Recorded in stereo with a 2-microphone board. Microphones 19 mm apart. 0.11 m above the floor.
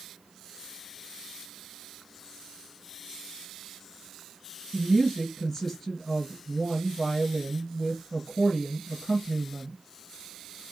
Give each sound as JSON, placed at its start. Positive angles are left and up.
{"t": 4.7, "sound": "a woman speaking", "side_deg": 10, "distance_m": 2.0}